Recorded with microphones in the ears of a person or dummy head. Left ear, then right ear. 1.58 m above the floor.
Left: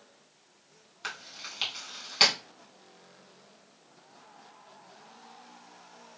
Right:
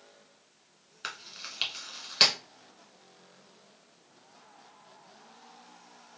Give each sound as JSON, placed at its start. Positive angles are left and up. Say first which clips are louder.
{"t": 1.0, "sound": "chewing", "louder": "left 1 dB", "side_deg": -5, "distance_m": 1.9}